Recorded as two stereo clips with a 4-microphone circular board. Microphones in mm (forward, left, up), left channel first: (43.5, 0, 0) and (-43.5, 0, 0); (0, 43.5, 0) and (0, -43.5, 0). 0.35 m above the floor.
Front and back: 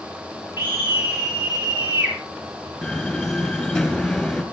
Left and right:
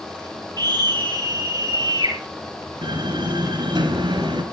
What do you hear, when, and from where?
0.6 s a scream: 120° right, 7.5 m
2.8 s a door slam: 85° right, 5 m